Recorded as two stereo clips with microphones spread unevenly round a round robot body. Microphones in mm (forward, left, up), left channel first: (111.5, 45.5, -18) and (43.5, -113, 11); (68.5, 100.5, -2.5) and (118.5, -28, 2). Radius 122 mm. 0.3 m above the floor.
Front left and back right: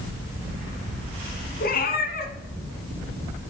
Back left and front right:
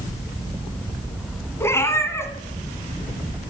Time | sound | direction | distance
1.6 | a cat meowing | 40° left | 1.6 m